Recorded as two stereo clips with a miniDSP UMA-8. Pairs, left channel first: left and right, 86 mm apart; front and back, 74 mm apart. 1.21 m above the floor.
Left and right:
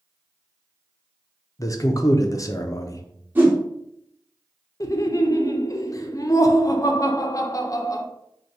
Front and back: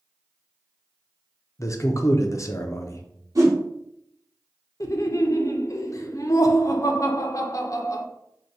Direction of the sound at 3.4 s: 155° right.